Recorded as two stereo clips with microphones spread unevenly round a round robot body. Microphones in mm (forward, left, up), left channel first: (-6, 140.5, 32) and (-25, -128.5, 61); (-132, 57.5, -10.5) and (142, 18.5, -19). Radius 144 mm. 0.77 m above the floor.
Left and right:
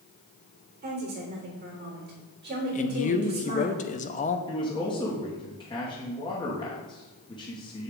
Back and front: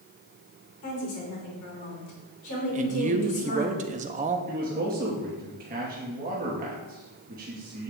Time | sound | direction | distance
0.8 | a woman speaking | 145° right | 3 m
2.7 | a man speaking | 45° left | 0.6 m
4.5 | a man speaking | 30° left | 1.1 m